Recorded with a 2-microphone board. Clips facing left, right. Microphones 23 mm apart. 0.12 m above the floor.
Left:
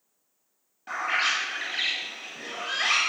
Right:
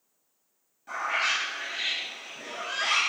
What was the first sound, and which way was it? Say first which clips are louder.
A bird: left 2 dB; 40° left (ahead or behind).